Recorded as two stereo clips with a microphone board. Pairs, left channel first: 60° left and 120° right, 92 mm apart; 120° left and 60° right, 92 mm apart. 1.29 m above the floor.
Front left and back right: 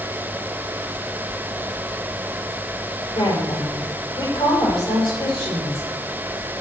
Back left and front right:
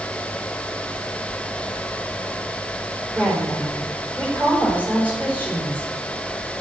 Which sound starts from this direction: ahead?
A woman speaking, at 3.1 s.